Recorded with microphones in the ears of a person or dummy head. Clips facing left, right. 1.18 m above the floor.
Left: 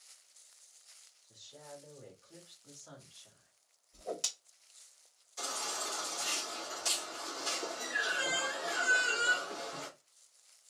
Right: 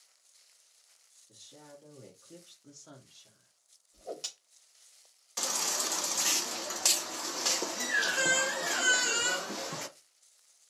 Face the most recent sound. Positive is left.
turn(degrees=-85)